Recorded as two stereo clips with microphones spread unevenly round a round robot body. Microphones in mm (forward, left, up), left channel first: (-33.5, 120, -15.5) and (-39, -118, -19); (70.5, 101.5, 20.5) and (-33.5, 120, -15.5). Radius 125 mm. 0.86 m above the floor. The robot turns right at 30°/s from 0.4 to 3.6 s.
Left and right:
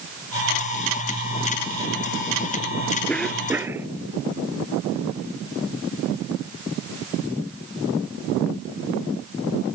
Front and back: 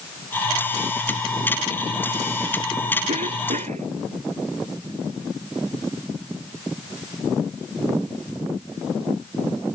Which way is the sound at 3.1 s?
175° left.